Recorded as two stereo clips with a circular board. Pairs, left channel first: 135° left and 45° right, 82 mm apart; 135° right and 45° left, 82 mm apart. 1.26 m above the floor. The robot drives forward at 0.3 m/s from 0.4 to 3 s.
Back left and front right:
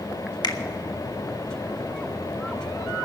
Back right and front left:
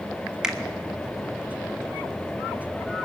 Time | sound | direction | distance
0.4 | a finger snap | 125° left | 1.4 m